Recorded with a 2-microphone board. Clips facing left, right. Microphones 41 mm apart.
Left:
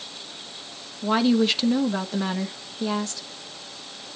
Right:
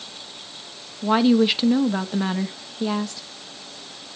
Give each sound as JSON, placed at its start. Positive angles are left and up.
{"t": 1.0, "sound": "a woman speaking", "side_deg": -15, "distance_m": 1.0}